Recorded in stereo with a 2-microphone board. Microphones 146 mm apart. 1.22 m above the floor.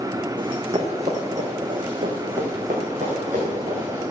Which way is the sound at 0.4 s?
35° right (ahead or behind).